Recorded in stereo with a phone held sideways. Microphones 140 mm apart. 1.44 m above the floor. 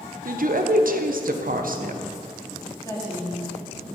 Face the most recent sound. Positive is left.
turn(degrees=25)  # may be behind; listen again after turning